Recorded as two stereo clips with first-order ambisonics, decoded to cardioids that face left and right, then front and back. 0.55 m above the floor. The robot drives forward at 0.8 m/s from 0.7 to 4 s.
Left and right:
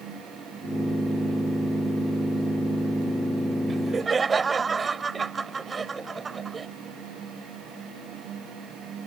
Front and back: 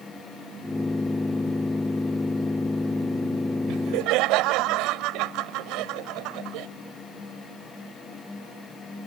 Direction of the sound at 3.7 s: 160° right.